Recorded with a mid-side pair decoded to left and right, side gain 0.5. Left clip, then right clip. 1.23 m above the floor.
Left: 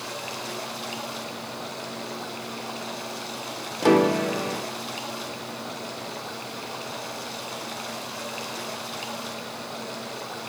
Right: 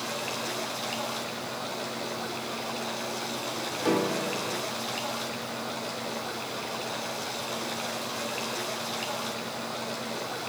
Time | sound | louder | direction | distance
0.0 | running water | right 1 dB | 5° left | 8 m
3.8 | a piano | left 8 dB | 50° left | 0.7 m